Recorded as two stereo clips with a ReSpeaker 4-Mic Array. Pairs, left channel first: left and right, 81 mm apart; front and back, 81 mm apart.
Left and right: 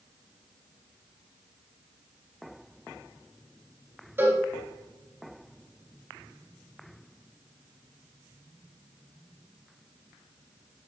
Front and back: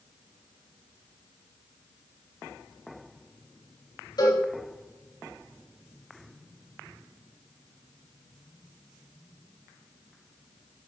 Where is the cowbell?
30° right, 3.5 m.